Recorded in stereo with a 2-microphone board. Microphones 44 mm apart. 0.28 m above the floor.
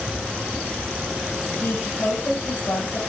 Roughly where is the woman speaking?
Left.